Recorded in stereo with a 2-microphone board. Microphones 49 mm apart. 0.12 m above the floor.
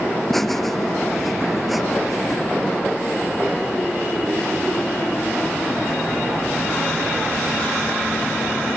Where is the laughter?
5° left (ahead or behind); by 2.4 s centre (ahead or behind).